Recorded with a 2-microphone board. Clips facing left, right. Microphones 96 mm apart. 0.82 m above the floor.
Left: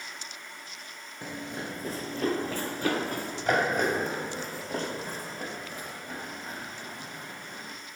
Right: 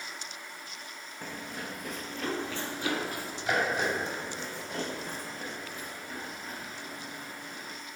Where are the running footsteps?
15° left (ahead or behind), 0.8 m; by 7.8 s 40° left (ahead or behind), 5 m.